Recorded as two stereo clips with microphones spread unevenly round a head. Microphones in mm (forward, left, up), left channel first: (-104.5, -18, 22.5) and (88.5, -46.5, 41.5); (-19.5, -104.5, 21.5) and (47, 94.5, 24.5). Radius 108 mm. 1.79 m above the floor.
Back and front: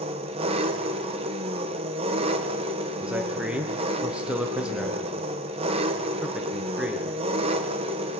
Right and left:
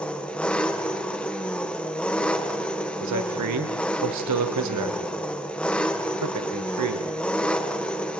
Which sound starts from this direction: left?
A man speaking, at 3.0 s.